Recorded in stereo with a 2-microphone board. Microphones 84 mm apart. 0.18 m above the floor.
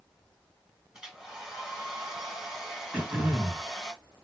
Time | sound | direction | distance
0.9 | a hair dryer | 5° right (ahead or behind) | 1.9 m
2.9 | throat clearing | 20° right (ahead or behind) | 2.5 m